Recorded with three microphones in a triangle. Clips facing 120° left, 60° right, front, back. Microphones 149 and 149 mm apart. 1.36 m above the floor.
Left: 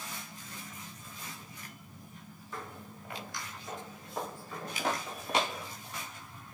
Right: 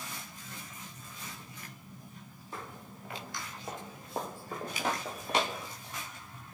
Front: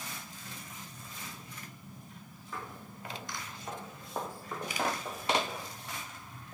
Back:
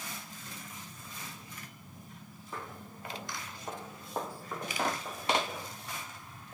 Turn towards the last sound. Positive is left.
turn(degrees=-70)